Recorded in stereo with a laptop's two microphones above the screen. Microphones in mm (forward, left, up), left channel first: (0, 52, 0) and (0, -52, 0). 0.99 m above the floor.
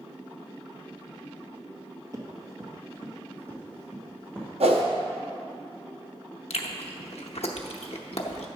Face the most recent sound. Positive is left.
turn(degrees=75)  # may be behind; listen again after turning